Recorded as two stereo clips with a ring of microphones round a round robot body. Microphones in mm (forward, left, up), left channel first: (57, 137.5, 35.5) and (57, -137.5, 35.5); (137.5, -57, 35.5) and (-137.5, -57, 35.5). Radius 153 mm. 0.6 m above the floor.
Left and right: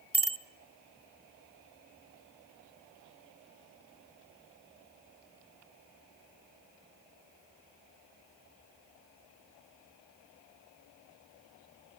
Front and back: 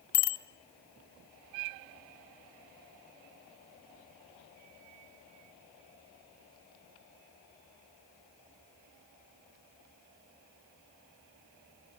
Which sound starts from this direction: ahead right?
A bicycle bell, at 0.1 s.